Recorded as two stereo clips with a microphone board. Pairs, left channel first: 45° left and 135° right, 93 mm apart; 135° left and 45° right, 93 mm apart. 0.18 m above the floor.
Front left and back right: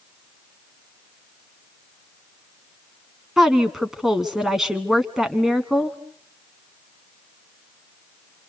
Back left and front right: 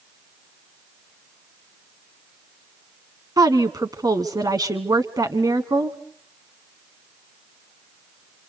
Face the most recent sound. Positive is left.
turn(degrees=-50)